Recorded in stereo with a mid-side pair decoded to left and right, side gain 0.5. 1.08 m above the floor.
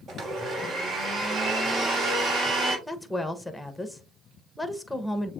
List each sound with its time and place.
0.1 s a blender: 50° right, 1.7 m
2.9 s a woman speaking: 5° left, 1.0 m